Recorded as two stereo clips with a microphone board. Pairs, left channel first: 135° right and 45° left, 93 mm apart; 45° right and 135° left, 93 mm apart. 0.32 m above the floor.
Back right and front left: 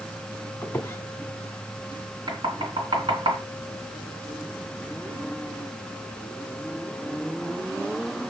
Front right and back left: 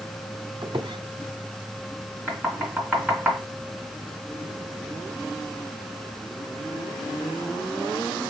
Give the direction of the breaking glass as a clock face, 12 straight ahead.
I don't hear breaking glass.